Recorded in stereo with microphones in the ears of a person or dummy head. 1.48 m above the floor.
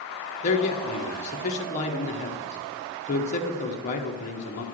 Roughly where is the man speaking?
Left.